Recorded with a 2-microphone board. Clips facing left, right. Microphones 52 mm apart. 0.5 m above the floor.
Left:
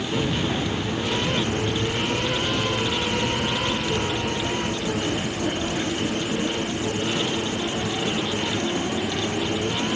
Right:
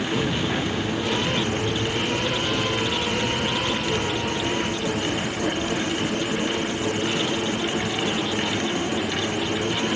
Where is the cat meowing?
I don't hear a cat meowing.